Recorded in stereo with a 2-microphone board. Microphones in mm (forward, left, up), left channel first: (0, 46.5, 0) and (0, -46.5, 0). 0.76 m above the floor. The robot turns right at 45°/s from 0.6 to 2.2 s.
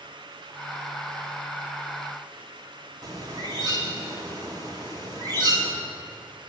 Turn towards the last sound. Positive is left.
turn(degrees=-50)  # may be behind; listen again after turning